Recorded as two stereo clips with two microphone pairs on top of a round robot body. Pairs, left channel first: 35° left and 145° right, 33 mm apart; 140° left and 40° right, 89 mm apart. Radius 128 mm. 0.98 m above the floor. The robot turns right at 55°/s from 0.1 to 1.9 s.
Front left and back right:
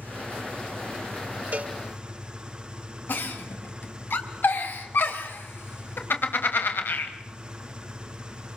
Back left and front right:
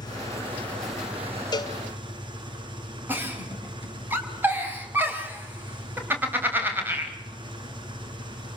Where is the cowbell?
175° left, 1.7 m; by 1.8 s 170° right, 1.7 m.